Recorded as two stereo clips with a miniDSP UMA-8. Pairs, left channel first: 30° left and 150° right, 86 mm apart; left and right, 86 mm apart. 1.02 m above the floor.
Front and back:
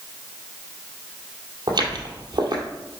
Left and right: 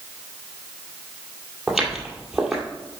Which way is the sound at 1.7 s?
175° right.